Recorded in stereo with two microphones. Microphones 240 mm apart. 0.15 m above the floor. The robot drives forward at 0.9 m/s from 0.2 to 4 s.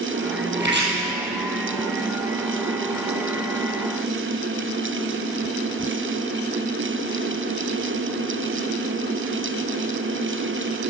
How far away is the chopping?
About 4 m.